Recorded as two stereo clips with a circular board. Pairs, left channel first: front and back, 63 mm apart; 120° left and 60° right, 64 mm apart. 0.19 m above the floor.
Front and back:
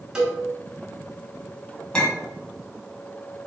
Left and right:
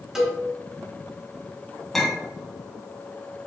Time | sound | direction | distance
0.1 | a cowbell | 125° right | 1.0 m
1.9 | a clink | 35° left | 0.8 m